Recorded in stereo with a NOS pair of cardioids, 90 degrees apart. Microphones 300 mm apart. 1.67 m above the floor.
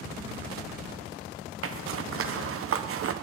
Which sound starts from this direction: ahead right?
A zipper, at 1.6 s.